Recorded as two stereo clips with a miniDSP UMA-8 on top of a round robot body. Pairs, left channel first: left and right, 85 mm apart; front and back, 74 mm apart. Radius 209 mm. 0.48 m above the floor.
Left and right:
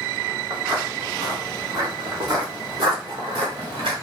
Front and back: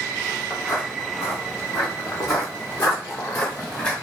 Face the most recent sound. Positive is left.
turn(degrees=-70)